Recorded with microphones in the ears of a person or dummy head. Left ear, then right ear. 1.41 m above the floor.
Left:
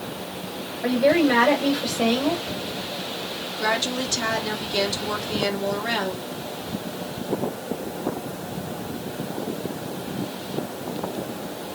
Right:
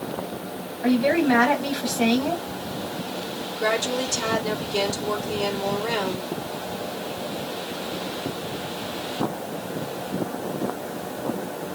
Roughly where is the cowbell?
I don't hear a cowbell.